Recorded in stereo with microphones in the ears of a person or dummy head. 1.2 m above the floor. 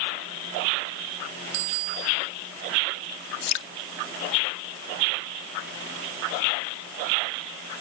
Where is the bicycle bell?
80° right.